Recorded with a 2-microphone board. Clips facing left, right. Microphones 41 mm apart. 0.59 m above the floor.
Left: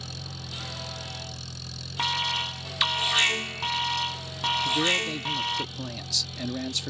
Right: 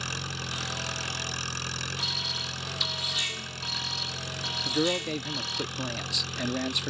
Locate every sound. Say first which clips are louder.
0.0 s an engine running: right 6 dB; 65° right (ahead or behind)
2.0 s an alarm: left 10 dB; 60° left (ahead or behind)
4.7 s a man speaking: even; 25° right (ahead or behind)